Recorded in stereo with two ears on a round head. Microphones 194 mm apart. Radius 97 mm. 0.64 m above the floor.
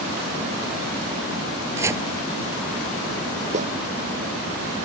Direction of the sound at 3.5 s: 35° right (ahead or behind).